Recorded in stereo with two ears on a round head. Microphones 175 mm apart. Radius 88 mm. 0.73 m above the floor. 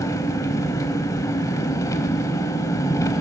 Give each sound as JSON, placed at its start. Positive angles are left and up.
{"t": 0.0, "sound": "an engine running", "side_deg": 15, "distance_m": 1.0}